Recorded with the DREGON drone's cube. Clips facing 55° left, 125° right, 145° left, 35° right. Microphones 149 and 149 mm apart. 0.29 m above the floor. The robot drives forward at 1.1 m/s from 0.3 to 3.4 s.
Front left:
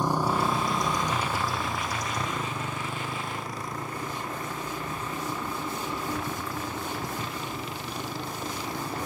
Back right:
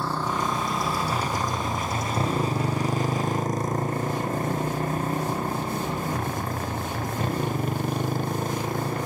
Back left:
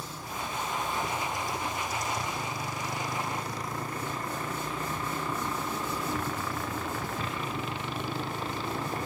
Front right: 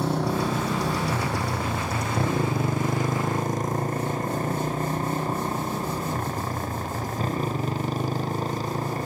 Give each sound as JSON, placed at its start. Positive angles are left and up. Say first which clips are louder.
{"t": 0.0, "sound": "a motorcycle", "louder": "front left 2 dB, front right 14 dB", "azimuth_deg": -20}